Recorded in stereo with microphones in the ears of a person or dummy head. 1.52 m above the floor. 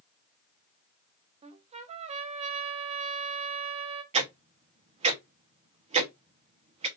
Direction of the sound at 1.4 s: 35° right (ahead or behind).